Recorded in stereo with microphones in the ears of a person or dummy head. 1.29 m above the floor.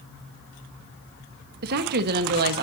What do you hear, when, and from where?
1.6 s a woman speaking: 55° right (ahead or behind), 1.5 m